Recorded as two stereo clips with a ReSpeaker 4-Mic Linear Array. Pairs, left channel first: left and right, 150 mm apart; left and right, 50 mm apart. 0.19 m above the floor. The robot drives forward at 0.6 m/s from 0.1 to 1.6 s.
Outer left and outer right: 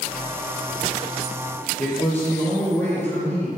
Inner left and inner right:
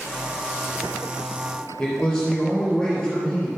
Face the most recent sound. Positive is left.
turn(degrees=10)  # may be behind; listen again after turning